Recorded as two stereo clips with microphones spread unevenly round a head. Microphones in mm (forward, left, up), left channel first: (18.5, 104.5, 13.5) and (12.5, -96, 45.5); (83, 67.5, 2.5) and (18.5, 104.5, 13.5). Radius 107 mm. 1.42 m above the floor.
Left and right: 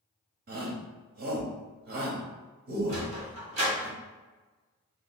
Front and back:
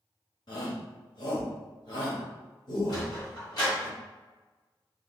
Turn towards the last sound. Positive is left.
turn(degrees=-55)